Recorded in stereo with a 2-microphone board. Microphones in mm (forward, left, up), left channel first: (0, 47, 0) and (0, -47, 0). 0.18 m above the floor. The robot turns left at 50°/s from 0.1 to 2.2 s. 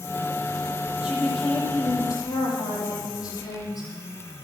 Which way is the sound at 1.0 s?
170° right.